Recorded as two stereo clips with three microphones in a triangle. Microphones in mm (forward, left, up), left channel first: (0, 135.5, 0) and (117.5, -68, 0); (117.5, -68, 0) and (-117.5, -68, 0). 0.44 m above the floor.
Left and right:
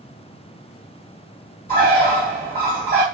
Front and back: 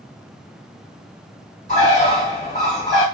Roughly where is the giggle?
No giggle in this recording.